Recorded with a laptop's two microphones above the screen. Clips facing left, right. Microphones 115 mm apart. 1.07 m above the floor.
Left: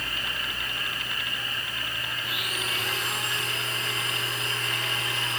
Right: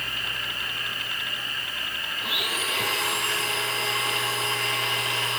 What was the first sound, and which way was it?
A blender, 80° right.